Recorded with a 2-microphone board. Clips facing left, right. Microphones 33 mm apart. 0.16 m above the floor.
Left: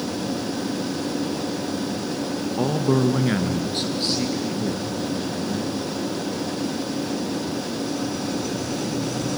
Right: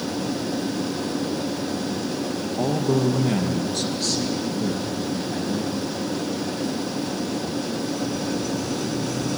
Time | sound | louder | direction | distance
2.6 | a man speaking | left 1 dB | 50° left (ahead or behind) | 1.4 m